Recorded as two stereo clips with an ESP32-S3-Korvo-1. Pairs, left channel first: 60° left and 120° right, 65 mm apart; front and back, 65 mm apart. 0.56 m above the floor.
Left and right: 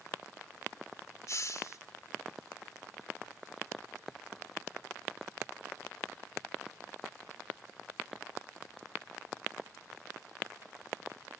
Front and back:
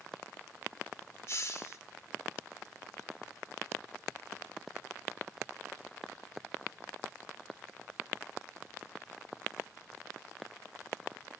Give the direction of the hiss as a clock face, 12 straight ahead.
11 o'clock.